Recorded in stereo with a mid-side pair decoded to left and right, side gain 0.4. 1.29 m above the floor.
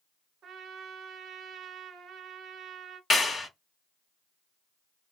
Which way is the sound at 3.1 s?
35° left.